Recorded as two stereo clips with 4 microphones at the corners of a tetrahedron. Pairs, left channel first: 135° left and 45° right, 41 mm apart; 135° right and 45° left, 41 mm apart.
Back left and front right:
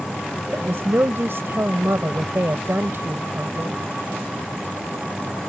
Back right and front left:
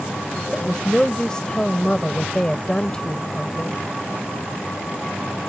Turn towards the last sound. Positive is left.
turn(degrees=-65)